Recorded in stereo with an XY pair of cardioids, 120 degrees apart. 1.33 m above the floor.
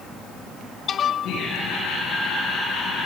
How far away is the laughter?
About 9.5 m.